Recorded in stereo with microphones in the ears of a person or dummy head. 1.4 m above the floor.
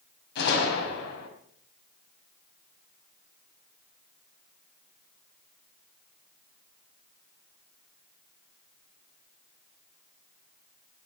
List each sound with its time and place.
0.3 s a gunshot: 60° left (ahead or behind), 5 m